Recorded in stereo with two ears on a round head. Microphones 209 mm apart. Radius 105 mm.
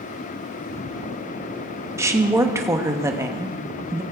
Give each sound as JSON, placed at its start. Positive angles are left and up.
{"t": 2.0, "sound": "a woman speaking", "side_deg": -15, "distance_m": 1.1}